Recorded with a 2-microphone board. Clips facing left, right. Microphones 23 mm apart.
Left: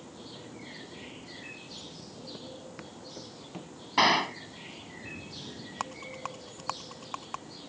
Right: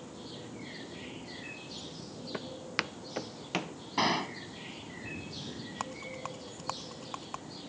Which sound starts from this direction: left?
A gunshot, at 4.0 s.